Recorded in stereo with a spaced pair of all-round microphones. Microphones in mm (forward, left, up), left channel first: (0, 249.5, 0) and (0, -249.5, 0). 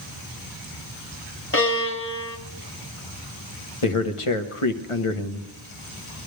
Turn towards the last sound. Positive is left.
turn(degrees=80)